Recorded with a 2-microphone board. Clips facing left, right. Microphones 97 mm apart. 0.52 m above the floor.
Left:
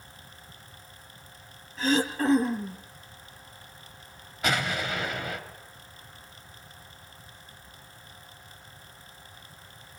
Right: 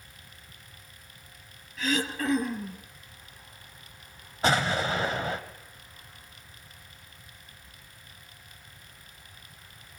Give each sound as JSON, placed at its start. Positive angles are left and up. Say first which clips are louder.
{"t": 1.8, "sound": "throat clearing", "louder": "left 4 dB", "side_deg": 30, "distance_m": 2.5}
{"t": 4.4, "sound": "an explosion", "louder": "right 3 dB", "side_deg": -30, "distance_m": 2.5}